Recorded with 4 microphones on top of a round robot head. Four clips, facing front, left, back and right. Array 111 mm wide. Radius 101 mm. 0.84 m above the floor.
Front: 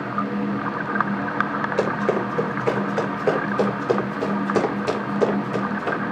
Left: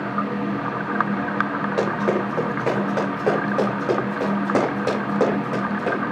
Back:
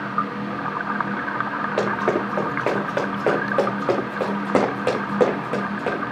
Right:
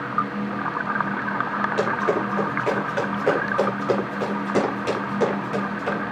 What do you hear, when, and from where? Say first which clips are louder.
1.8 s running footsteps: left 2 dB, back 1 dB; 155° left, 6.5 m; by 6.0 s 145° left, 4.5 m